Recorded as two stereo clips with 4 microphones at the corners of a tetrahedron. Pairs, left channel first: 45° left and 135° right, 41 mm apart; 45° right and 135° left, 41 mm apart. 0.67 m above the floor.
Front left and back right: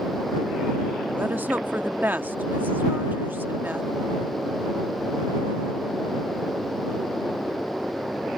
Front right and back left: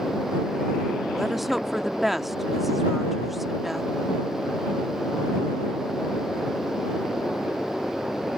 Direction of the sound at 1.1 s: 140° right.